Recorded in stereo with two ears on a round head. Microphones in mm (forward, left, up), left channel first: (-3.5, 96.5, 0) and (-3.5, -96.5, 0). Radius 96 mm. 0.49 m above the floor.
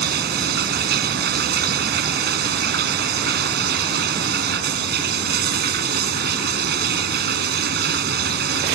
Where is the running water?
50° right (ahead or behind).